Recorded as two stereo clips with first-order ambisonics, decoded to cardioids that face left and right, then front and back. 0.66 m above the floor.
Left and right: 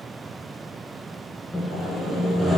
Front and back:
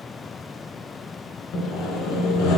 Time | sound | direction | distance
1.5 | sawing | 10° left | 1.4 m